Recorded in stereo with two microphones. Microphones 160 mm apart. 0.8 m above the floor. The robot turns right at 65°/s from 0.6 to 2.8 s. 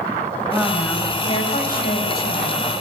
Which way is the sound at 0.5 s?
10° right.